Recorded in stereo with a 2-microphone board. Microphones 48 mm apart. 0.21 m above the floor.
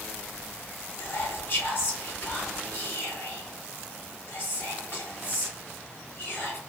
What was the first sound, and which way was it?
Whispering, 40° left (ahead or behind).